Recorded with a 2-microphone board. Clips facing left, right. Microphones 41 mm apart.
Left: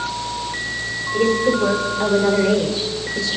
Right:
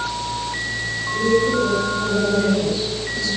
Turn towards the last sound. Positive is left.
turn(degrees=90)